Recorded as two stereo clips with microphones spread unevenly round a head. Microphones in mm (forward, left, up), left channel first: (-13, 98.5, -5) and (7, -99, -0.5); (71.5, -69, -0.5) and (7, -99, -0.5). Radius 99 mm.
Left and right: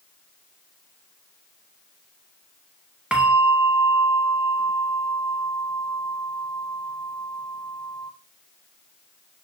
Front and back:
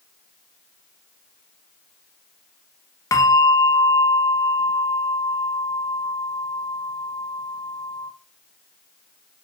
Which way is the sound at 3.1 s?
Straight ahead.